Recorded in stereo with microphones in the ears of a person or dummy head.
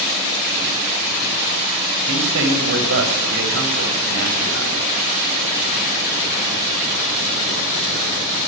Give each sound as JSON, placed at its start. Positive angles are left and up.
{"t": 2.1, "sound": "a man speaking", "side_deg": -70, "distance_m": 7.0}